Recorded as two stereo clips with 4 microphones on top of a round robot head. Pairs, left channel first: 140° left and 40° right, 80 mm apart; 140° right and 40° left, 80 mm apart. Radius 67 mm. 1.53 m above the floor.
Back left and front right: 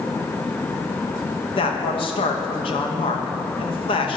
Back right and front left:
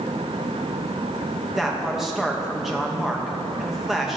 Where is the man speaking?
130° left, 2.5 m.